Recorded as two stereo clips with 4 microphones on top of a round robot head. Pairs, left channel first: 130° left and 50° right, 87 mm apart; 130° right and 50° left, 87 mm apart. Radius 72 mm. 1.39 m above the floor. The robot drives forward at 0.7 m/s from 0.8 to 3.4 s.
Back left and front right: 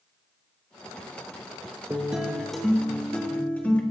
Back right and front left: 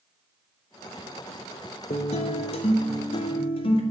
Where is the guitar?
125° right, 1.0 m; by 3.8 s 155° right, 1.8 m.